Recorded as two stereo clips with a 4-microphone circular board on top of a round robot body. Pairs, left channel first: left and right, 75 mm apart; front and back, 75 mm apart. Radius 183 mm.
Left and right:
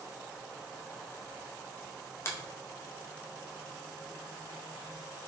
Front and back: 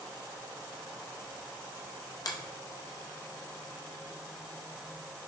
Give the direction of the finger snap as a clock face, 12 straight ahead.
11 o'clock.